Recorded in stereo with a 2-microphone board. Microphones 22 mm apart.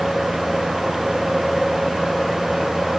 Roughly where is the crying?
No crying in this recording.